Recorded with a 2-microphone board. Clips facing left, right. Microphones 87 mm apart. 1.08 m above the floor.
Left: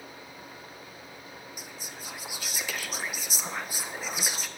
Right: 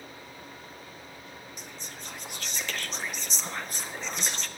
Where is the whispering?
5° left (ahead or behind), 0.6 m.